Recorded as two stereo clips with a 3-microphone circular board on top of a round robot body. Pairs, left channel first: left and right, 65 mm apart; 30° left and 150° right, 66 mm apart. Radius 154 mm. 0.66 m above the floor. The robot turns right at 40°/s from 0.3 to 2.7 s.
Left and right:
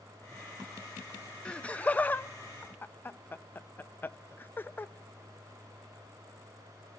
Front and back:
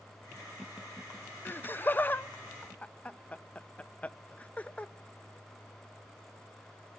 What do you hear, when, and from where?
1.4 s laughter: 30° left, 0.6 m; by 4.9 s 80° left, 0.6 m